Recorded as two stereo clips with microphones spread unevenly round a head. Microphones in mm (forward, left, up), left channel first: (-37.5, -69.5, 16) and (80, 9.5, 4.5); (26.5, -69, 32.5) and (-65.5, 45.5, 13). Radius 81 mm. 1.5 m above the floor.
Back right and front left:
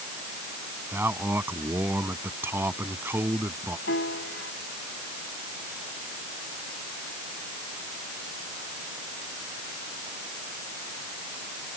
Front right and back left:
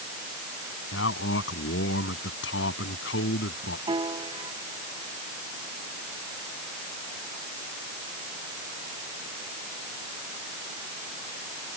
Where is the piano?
170° right.